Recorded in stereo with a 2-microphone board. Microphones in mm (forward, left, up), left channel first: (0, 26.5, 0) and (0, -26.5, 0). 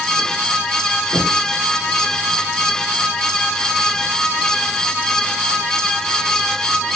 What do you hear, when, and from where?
1.1 s knocking: 65° right (ahead or behind), 5.5 m